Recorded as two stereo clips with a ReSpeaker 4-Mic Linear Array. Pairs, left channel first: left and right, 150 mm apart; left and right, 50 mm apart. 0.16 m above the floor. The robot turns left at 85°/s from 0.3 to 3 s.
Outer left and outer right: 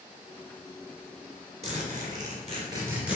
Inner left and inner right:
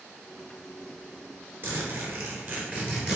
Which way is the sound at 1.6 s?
55° right.